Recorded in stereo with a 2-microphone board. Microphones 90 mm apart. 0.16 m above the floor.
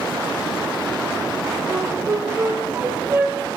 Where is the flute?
25° right (ahead or behind), 3 m.